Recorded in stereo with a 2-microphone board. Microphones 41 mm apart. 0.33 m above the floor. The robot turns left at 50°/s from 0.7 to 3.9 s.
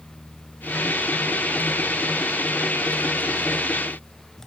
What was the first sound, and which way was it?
Only background noise.